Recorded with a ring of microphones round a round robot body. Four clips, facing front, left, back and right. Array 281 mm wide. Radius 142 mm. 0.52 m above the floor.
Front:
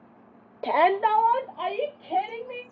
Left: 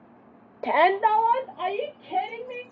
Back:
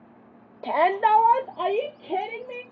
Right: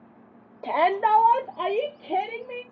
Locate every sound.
0.6 s a shout: 55° left, 0.7 m; by 2.6 s 140° right, 1.9 m